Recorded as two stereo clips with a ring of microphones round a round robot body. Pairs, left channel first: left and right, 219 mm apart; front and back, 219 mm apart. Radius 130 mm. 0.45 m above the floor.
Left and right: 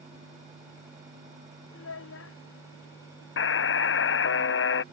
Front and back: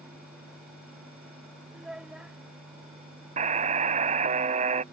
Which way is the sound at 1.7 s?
95° left.